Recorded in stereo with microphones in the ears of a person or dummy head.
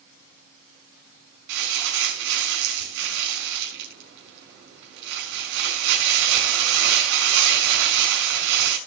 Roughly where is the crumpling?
Right.